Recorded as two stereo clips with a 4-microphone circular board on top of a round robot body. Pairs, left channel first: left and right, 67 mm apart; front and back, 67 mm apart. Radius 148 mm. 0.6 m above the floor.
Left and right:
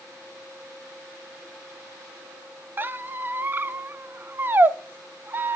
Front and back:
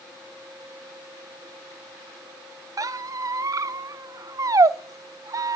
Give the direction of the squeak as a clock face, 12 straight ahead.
5 o'clock.